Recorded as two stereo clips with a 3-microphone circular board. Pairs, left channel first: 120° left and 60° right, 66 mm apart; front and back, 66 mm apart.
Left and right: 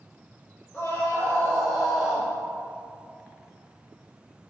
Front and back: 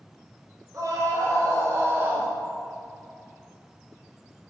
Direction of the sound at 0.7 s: 170° left.